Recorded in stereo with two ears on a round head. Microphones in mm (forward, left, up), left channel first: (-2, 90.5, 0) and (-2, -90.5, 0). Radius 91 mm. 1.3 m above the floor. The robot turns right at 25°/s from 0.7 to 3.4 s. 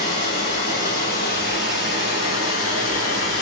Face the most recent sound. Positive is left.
turn(degrees=105)